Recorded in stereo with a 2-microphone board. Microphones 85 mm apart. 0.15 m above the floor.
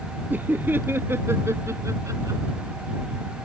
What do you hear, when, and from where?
0.3 s laughter: 20° right (ahead or behind); by 2.4 s 40° right (ahead or behind)